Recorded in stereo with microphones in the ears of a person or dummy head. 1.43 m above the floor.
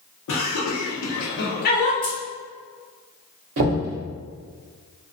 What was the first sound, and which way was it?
Laughter, 75° left (ahead or behind).